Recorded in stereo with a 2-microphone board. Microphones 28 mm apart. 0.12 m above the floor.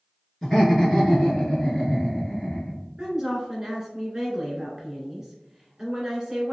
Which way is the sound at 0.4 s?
15° left (ahead or behind).